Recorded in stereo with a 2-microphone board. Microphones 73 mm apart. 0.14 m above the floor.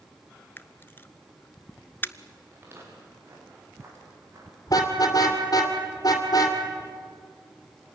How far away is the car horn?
About 2.5 m.